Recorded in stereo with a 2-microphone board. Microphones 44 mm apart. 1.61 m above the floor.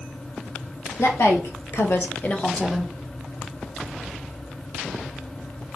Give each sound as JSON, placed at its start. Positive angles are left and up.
{"t": 1.0, "sound": "a woman speaking", "side_deg": 75, "distance_m": 1.6}